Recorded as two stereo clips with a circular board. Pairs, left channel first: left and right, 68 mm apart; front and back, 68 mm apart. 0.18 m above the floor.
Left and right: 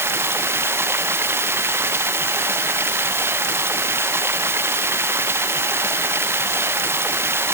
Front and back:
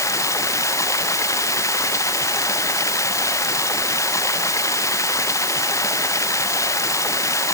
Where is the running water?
40° right.